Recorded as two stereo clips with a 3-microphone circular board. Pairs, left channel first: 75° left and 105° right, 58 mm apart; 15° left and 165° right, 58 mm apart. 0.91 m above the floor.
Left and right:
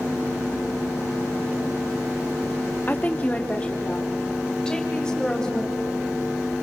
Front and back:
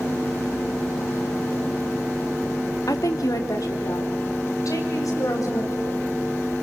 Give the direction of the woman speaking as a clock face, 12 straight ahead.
11 o'clock.